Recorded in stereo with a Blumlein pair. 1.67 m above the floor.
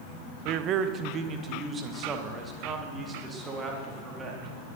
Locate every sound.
0.5 s a man speaking: 40° right, 1.0 m; by 4.5 s 15° right, 4.5 m